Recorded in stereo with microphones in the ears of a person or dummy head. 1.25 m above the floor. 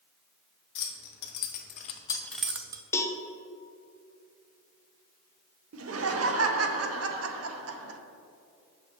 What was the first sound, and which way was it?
Keys jangling, 65° left (ahead or behind).